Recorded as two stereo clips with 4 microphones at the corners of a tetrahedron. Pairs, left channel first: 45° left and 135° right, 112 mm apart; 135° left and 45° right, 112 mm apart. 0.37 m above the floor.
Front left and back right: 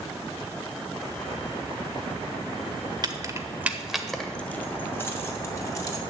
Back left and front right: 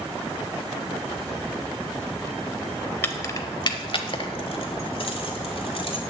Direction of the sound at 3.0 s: 165° right.